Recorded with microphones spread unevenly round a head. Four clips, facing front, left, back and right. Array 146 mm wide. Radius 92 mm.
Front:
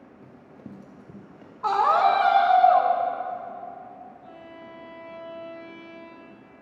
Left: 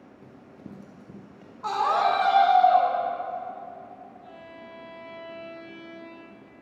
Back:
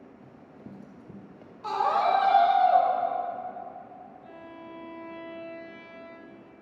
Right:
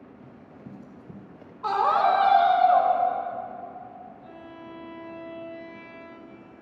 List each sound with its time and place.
0.2 s running footsteps: 65° left, 1.4 m; by 1.5 s 155° right, 1.3 m
1.6 s a scream: straight ahead, 3 m
4.2 s a violin: 170° left, 1.1 m